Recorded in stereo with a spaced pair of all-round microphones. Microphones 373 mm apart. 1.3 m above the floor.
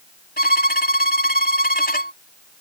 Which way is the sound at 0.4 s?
25° left (ahead or behind).